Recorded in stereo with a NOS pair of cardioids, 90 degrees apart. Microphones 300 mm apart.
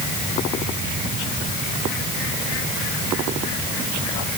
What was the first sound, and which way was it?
Only background noise.